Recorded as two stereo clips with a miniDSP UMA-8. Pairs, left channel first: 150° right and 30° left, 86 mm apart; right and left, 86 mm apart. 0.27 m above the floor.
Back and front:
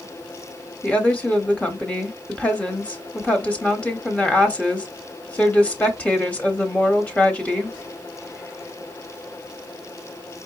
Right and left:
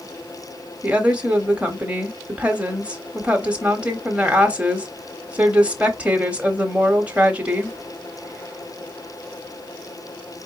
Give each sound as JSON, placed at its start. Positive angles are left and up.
{"t": 0.8, "sound": "a woman speaking", "azimuth_deg": 150, "distance_m": 1.0}